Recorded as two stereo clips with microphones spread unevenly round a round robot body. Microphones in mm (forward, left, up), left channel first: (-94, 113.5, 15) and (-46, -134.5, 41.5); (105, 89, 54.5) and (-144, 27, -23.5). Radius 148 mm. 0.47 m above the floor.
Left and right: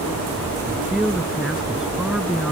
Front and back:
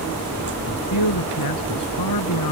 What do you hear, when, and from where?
0.7 s a man speaking: 10° left